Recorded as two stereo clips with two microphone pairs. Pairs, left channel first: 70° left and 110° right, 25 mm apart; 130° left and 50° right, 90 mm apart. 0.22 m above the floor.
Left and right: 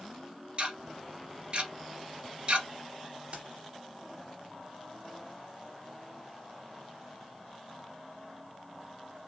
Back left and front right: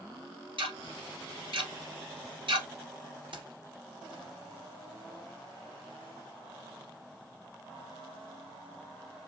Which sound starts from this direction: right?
Keys jangling, at 3.3 s.